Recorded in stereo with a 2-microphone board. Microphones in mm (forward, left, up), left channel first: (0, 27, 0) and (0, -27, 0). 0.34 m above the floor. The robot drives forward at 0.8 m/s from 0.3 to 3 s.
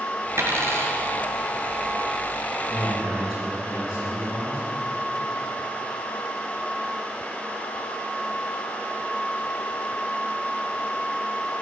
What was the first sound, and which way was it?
A dropped coin, 60° right (ahead or behind).